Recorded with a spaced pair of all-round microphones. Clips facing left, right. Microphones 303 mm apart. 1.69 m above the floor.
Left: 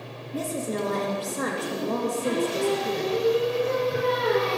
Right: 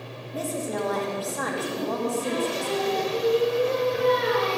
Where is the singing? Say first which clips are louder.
Left 3 dB; 60° left (ahead or behind), 3.5 m.